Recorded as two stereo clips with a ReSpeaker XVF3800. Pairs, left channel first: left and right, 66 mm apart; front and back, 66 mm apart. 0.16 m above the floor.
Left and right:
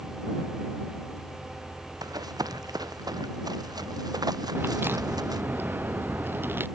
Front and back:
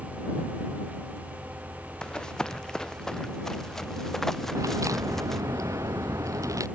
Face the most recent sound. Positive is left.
turn(degrees=-150)